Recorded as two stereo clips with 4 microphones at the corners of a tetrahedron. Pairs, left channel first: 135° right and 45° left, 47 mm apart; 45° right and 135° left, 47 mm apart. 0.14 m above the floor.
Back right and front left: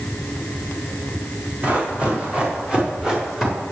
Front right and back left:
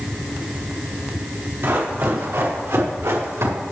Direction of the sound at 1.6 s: 105° left.